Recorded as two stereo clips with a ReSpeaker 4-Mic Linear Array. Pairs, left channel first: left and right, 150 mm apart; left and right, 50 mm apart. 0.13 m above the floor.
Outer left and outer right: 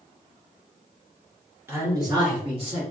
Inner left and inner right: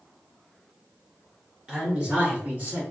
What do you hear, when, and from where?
1.7 s a man speaking: 15° right (ahead or behind), 1.4 m; by 2.8 s 45° right (ahead or behind), 1.5 m